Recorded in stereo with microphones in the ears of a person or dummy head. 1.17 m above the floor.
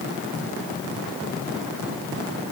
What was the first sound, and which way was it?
Only background noise.